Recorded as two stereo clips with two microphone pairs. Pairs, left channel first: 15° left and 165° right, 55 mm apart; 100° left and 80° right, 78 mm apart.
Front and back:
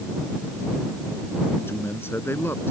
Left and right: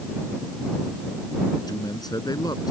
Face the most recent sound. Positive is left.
turn(degrees=60)